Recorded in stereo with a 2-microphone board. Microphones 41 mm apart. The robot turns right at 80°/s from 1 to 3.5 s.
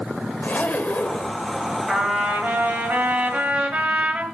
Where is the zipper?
45° left (ahead or behind), 0.8 m.